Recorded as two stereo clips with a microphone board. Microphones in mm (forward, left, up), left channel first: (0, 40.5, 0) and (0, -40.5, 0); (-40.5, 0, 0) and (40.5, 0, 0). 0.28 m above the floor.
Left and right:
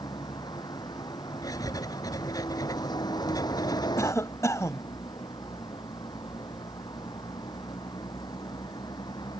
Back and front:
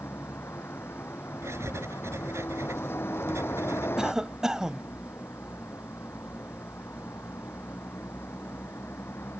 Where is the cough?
75° left.